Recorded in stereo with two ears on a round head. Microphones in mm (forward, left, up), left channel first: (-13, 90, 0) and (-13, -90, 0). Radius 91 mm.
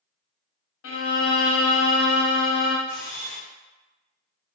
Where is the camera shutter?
40° left (ahead or behind), 1.9 m.